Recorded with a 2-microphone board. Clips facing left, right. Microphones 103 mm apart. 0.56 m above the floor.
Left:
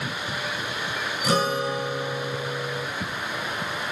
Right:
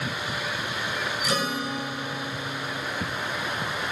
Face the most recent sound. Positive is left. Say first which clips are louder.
# left 7 dB
turn(degrees=40)  # may be behind; listen again after turning